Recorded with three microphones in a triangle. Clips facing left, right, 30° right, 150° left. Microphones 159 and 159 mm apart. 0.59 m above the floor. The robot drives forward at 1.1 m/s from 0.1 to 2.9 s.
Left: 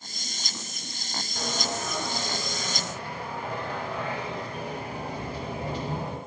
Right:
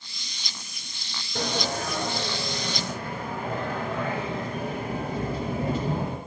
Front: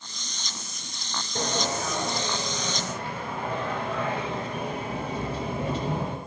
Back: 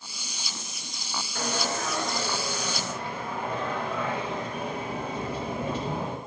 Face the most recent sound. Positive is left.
turn(degrees=-130)